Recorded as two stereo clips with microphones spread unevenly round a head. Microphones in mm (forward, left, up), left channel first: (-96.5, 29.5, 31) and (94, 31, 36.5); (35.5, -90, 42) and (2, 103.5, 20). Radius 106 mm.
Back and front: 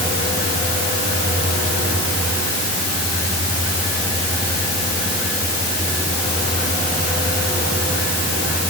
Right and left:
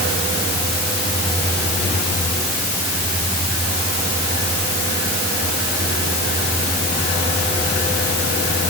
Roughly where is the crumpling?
I don't hear crumpling.